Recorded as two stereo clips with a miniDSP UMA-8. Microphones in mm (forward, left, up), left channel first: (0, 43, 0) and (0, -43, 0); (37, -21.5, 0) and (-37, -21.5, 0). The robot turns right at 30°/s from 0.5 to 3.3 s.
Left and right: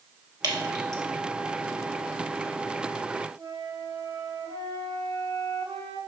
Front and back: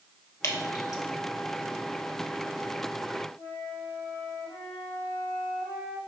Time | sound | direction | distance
0.4 | dripping | 50° right | 1.8 m
3.4 | a flute | 45° right | 3 m